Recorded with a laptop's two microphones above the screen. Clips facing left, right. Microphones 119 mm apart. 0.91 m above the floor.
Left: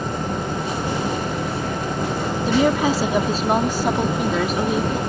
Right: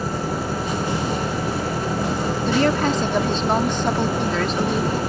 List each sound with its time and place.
0.0 s an engine running: 5° right (ahead or behind)
2.5 s a woman speaking: 5° left (ahead or behind)